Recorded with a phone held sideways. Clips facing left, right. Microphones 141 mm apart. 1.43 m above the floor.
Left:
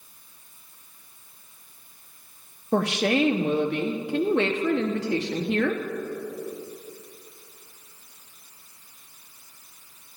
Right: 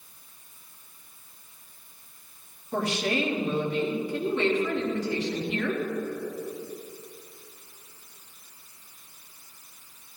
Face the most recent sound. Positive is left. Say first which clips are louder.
# left 5 dB
turn(degrees=80)